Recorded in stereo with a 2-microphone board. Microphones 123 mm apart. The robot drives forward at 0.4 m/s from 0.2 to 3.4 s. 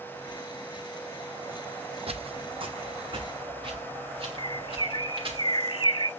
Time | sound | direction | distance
2.1 | footsteps | 60° right (ahead or behind) | 0.7 m
4.4 | a bird | 45° left (ahead or behind) | 0.6 m